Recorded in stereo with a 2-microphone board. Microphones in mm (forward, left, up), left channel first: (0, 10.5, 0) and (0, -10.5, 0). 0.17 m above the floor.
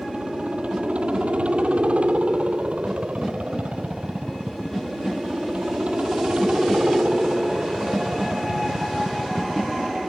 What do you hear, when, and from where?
0.0 s a helicopter: 75° right (ahead or behind)